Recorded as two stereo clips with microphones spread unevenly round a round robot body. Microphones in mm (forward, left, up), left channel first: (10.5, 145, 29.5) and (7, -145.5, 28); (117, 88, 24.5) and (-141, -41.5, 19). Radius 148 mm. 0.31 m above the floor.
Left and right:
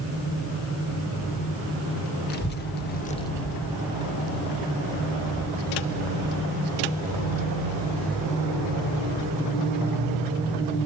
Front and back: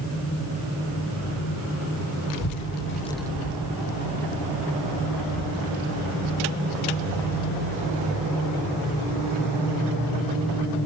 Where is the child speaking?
35° left, 1.3 m; by 10.7 s 155° right, 10 m.